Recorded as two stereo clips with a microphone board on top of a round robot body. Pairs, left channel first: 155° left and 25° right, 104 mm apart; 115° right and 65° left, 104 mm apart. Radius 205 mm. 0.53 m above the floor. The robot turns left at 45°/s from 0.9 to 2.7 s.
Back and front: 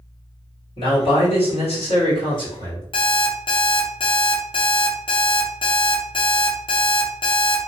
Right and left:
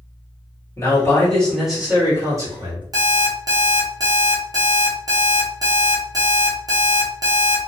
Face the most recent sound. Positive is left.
turn(degrees=120)